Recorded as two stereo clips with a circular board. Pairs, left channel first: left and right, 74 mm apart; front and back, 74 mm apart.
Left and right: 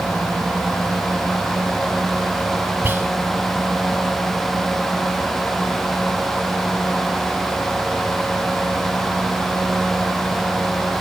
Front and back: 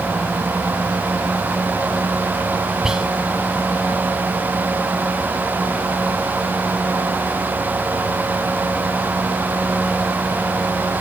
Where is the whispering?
105° right, 1.2 m.